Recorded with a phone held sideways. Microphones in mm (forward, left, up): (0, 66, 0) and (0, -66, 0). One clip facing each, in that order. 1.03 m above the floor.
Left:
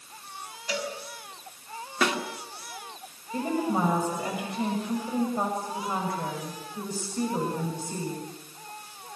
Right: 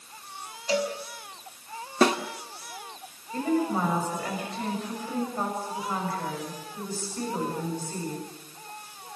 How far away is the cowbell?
About 5 m.